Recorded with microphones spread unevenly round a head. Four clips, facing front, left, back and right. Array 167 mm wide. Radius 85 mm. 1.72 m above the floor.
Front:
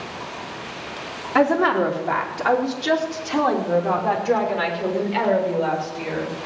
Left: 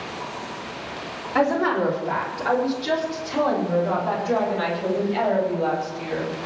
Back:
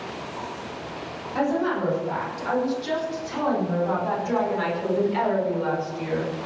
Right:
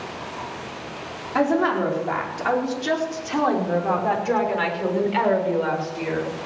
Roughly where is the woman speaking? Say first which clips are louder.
Even, front 6 dB; ahead.